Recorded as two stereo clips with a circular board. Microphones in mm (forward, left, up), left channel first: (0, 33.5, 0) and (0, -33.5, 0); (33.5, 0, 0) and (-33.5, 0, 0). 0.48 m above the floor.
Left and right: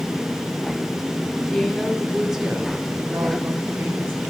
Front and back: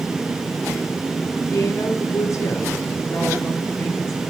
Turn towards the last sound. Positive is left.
turn(degrees=-40)